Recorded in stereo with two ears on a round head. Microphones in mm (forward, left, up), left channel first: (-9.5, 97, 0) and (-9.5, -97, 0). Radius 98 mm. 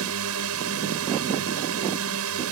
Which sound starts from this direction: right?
A drone, at 0.0 s.